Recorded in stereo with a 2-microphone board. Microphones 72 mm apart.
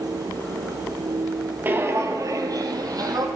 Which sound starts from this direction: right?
Footsteps, at 1.6 s.